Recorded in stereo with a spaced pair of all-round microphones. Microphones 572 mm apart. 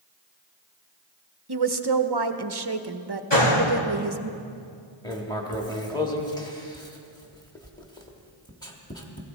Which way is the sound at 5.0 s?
5° left (ahead or behind).